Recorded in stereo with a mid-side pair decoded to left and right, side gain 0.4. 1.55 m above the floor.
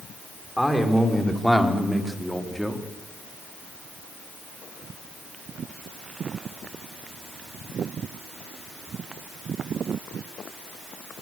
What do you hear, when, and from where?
0.6 s a man speaking: straight ahead, 6 m